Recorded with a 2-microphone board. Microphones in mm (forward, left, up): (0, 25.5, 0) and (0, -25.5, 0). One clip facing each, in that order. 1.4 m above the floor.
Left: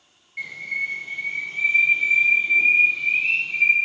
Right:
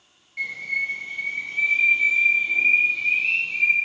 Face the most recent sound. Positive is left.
turn(degrees=10)  # may be behind; listen again after turning